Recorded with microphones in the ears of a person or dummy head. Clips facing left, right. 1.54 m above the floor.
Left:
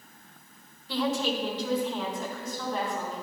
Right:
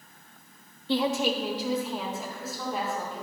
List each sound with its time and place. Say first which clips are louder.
0.9 s a woman speaking: right 2 dB; 25° right (ahead or behind), 0.6 m; by 3.2 s 5° right (ahead or behind), 4 m